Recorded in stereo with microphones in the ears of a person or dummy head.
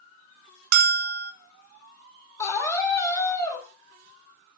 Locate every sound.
0.7 s a bell: 55° right (ahead or behind), 0.9 m
2.4 s a scream: 20° left (ahead or behind), 3 m